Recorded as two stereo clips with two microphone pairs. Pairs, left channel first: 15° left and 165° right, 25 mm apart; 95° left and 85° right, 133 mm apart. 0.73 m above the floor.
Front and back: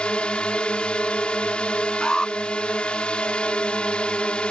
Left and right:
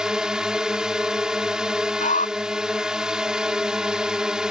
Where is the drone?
Straight ahead.